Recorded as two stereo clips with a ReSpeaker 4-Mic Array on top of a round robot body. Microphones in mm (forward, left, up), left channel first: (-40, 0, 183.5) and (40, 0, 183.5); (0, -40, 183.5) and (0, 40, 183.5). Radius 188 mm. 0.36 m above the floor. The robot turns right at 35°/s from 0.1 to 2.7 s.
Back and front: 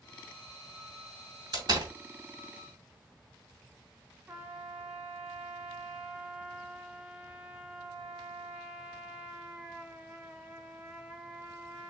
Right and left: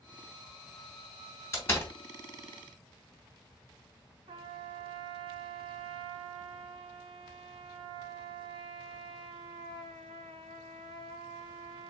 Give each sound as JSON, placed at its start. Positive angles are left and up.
{"t": 1.5, "sound": "a door slam", "azimuth_deg": -30, "distance_m": 3.0}
{"t": 4.3, "sound": "a trumpet", "azimuth_deg": 80, "distance_m": 0.8}